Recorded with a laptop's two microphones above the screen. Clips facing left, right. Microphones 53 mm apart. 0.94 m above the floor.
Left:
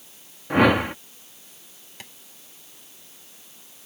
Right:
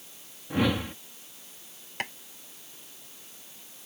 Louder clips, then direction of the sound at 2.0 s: Right 11 dB; 50° right (ahead or behind).